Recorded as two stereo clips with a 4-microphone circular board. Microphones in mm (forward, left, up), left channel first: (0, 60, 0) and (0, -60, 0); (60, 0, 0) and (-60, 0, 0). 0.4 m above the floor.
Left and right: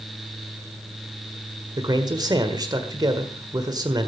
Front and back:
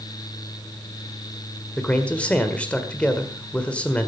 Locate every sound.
1.8 s a man speaking: 70° right, 1.6 m